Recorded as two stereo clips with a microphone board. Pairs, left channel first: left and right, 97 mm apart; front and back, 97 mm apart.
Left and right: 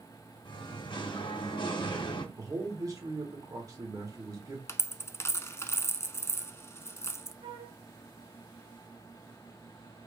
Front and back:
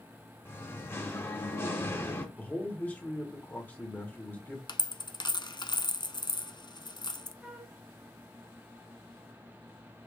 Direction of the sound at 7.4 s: 100° right.